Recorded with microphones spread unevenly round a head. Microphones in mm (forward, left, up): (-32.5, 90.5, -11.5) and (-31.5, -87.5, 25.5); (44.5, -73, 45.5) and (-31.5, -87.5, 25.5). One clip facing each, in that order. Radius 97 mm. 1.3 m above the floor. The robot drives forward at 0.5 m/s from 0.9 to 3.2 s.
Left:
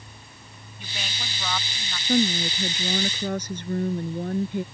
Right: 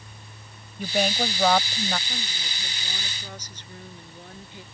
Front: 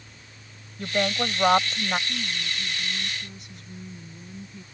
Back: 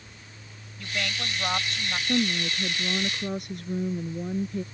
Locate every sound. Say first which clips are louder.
0.8 s a woman speaking: right 15 dB, front 7 dB; 35° right; by 2.0 s 40° right
2.1 s a woman speaking: left 17 dB, back 7 dB; 130° left